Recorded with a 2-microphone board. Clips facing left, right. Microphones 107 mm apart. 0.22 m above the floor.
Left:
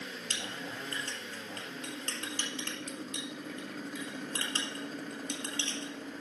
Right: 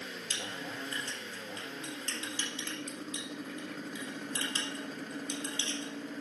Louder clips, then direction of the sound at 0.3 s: Right 1 dB; 60° left (ahead or behind).